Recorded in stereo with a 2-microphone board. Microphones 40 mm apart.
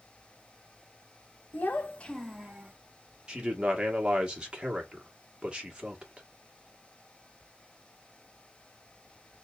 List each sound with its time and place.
1.5 s a child speaking: 45° left (ahead or behind), 1.0 m; by 2.7 s 30° right (ahead or behind), 0.9 m
3.3 s a man speaking: 20° right (ahead or behind), 1.5 m